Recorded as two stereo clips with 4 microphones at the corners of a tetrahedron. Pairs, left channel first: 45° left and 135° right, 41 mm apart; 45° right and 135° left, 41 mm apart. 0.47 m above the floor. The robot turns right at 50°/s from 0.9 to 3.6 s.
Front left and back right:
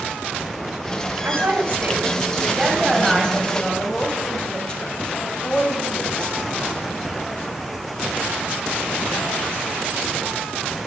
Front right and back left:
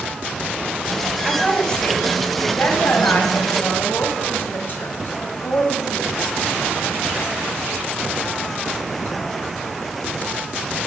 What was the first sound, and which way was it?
A woman speaking, 135° right.